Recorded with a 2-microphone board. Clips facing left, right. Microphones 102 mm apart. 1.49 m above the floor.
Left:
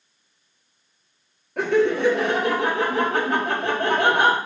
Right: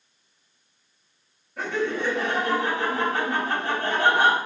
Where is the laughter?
70° left (ahead or behind), 0.8 m.